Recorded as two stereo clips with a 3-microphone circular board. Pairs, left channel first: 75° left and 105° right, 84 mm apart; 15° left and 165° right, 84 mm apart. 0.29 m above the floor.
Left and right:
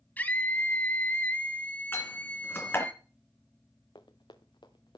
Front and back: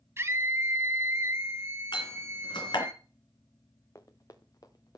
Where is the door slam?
15° left, 3 m.